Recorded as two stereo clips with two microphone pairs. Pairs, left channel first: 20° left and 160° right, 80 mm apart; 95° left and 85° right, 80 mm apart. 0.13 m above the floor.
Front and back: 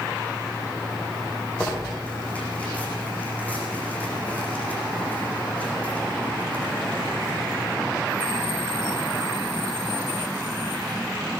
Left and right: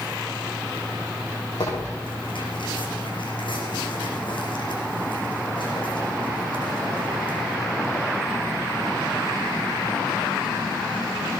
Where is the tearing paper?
95° left, 8 m.